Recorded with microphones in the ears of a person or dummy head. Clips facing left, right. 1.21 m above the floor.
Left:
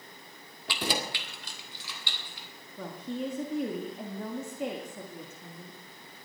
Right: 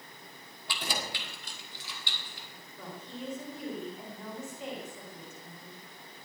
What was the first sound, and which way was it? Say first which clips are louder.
Keys jangling: left 5 dB; 55° left (ahead or behind).